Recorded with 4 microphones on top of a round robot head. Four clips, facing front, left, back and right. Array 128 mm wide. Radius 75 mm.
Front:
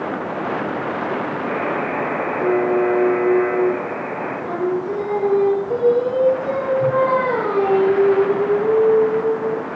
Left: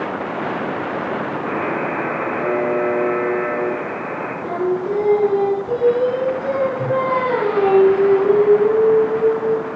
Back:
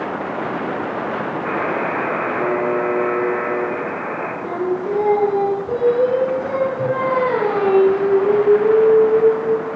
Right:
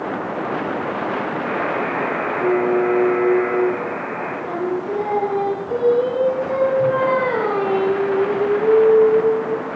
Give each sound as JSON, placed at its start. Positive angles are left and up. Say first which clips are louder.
{"t": 1.4, "sound": "a buzzer", "louder": "left 1 dB, back 2 dB", "azimuth_deg": 175, "distance_m": 6.0}
{"t": 4.4, "sound": "singing", "louder": "left 4 dB, even", "azimuth_deg": 155, "distance_m": 5.5}